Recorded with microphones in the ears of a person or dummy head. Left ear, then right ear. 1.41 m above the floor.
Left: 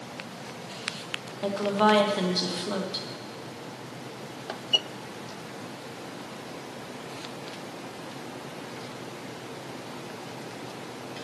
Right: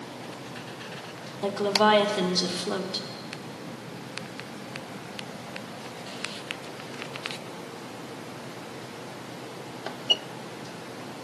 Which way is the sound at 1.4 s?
10° right (ahead or behind).